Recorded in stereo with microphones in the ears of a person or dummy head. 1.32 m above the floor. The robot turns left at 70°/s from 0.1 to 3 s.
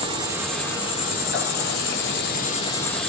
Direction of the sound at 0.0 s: 155° right.